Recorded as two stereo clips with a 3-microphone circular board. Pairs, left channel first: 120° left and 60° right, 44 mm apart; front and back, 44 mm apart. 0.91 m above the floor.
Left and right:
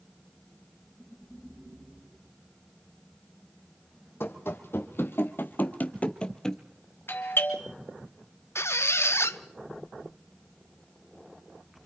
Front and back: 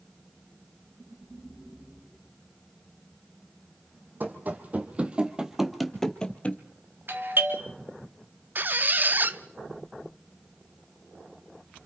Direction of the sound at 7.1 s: 150° left.